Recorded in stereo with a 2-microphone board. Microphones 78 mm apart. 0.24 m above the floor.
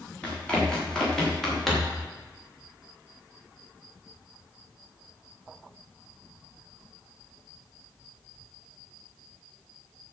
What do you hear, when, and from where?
0.2 s running footsteps: 15° left (ahead or behind), 7 m; by 2.0 s centre (ahead or behind), 5.5 m